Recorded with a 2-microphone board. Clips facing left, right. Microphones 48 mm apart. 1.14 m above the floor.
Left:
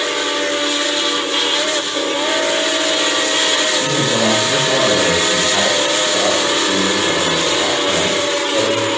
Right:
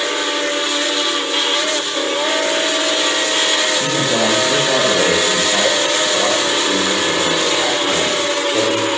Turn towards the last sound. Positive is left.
turn(degrees=-25)  # may be behind; listen again after turning